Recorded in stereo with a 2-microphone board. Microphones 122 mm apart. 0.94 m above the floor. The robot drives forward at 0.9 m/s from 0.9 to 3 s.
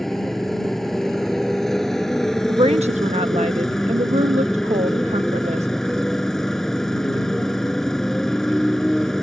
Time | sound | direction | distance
0.0 | a motorcycle | 5° left (ahead or behind) | ?
2.5 | a woman speaking | 50° right (ahead or behind) | ?